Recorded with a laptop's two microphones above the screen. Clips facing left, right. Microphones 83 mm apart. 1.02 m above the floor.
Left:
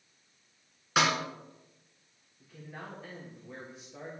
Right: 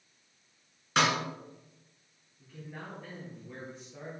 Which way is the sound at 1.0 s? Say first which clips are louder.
Even; 5° left (ahead or behind).